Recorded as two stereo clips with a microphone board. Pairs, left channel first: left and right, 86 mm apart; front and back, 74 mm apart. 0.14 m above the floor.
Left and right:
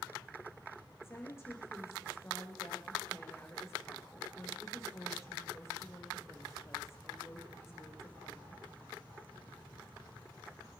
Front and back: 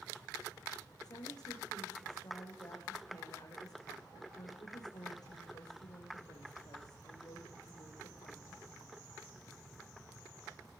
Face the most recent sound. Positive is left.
turn(degrees=30)